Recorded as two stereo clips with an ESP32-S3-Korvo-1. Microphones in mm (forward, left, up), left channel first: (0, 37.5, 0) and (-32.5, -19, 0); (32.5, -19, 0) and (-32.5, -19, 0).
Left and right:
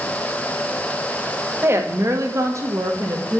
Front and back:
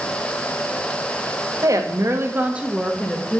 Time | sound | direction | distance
1.6 | a woman speaking | 165° right | 1.5 m